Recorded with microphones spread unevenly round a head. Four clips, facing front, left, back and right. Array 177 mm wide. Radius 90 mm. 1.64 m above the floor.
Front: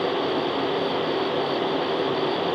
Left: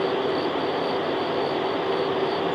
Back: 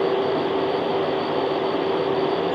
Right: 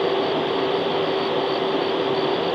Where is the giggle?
No giggle in this recording.